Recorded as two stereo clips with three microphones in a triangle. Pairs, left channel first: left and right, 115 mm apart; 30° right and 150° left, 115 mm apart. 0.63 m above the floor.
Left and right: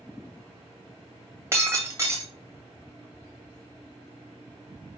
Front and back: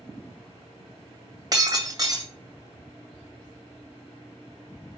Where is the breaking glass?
155° right, 2 m.